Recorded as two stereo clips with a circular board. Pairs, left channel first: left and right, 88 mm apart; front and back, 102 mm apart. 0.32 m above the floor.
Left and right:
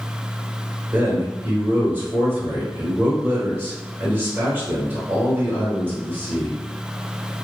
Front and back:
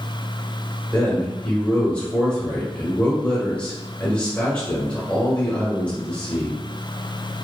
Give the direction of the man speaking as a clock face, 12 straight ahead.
2 o'clock.